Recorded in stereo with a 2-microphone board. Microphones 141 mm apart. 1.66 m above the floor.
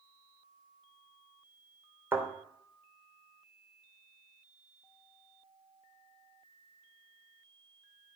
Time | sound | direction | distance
2.1 | a thud | 15° right (ahead or behind) | 3 m